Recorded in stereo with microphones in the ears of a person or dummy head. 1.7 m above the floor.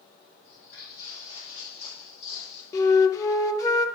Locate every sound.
0.4 s footsteps: 35° left (ahead or behind), 4 m; by 2.6 s 50° left (ahead or behind), 2.5 m
2.7 s a flute: 25° left (ahead or behind), 0.7 m